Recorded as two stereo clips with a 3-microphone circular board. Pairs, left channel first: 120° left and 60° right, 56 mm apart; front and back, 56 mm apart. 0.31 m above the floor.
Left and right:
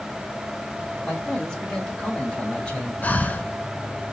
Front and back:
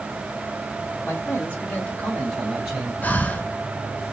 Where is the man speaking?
40° left, 2.5 m; by 2.9 s 175° left, 1.3 m.